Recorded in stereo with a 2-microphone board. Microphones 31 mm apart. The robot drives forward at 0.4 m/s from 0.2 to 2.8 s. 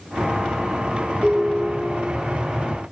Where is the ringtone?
50° right (ahead or behind), 1.4 m; by 2.2 s 40° right (ahead or behind), 1.6 m.